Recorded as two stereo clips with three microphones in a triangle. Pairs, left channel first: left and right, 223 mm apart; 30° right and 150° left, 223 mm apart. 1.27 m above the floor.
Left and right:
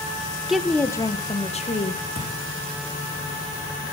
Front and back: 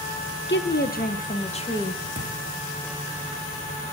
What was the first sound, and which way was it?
A woman speaking, 5° right.